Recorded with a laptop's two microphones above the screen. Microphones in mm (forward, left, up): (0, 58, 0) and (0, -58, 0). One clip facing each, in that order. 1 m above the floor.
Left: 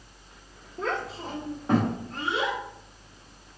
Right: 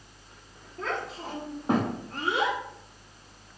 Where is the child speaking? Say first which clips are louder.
Left 2 dB; 10° left (ahead or behind), 1.0 m; by 2.6 s 55° right (ahead or behind), 0.9 m.